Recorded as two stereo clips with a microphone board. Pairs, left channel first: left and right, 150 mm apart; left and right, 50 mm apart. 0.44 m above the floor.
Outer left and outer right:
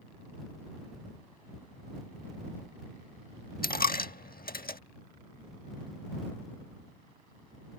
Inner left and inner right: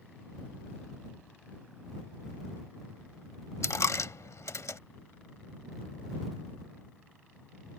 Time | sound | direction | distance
3.6 | a dropped coin | 80° left | ?